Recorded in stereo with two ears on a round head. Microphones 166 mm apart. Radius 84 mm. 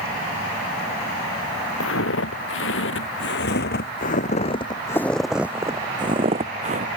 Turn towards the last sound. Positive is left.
turn(degrees=-40)  # may be behind; listen again after turning